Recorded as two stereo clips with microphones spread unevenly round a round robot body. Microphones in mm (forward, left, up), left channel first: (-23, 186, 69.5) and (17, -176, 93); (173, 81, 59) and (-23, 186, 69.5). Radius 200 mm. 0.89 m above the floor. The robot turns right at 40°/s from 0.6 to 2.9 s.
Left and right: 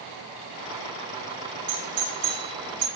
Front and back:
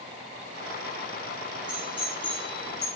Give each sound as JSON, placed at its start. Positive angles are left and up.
{"t": 1.7, "sound": "a doorbell", "azimuth_deg": -120, "distance_m": 2.5}